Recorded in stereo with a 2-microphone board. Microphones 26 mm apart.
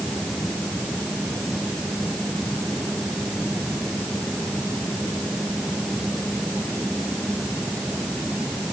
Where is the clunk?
I don't hear a clunk.